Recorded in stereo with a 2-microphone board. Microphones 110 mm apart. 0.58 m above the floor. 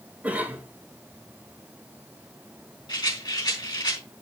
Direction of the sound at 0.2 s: 15° right (ahead or behind).